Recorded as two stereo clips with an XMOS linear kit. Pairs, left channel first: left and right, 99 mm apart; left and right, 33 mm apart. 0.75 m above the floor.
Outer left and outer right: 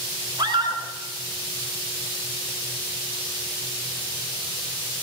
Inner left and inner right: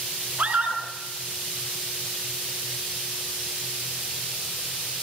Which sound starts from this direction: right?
A scream, at 0.4 s.